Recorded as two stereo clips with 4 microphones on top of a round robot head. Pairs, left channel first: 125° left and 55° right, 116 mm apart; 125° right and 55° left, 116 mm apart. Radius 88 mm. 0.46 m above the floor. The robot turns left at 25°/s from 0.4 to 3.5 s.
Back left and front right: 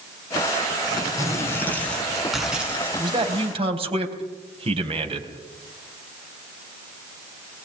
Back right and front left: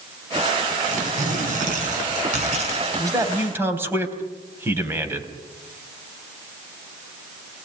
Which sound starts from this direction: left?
Tearing paper, at 0.8 s.